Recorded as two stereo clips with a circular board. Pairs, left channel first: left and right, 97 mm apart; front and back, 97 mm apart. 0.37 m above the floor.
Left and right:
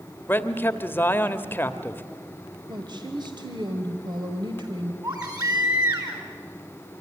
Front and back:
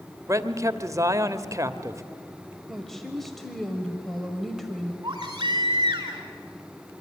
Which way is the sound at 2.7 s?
85° right.